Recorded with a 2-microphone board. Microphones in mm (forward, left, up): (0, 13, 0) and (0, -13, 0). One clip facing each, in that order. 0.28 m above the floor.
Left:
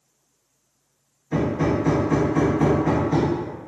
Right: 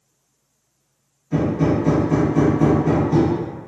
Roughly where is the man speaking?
No man speaking in this recording.